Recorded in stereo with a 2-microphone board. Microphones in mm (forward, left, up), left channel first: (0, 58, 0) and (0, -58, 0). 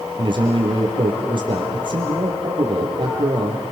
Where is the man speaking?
45° right (ahead or behind), 5 m.